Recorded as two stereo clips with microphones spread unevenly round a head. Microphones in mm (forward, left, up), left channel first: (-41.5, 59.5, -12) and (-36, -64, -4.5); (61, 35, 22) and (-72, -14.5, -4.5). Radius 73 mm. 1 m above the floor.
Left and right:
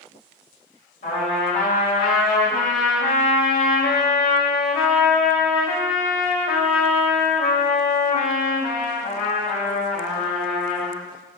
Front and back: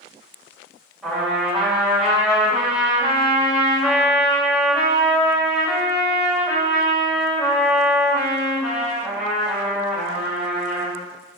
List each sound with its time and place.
1.0 s a trumpet: 110° left, 3.5 m